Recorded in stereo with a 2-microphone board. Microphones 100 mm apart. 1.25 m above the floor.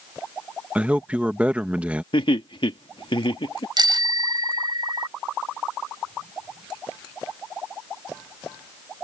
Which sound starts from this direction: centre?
A man speaking, at 0.8 s.